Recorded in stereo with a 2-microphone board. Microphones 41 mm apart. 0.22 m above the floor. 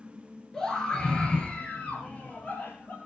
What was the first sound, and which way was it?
A scream, 15° left (ahead or behind).